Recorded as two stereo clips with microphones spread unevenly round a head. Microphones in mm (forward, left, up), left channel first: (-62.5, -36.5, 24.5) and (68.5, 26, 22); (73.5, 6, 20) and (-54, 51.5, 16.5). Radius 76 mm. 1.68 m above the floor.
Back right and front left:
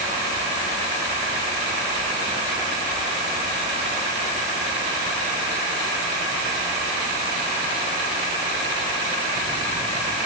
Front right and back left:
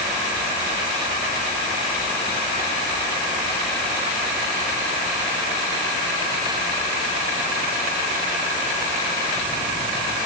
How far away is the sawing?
I don't hear sawing.